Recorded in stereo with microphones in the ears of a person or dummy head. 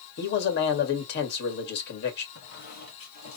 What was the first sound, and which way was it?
A man speaking, 65° left (ahead or behind).